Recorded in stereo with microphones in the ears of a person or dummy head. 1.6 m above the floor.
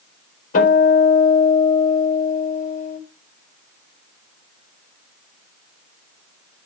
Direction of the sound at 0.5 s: 45° left (ahead or behind).